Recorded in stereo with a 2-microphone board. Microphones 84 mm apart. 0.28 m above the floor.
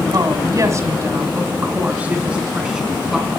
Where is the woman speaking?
45° right (ahead or behind), 2 m; by 3.3 s 5° right (ahead or behind), 3 m.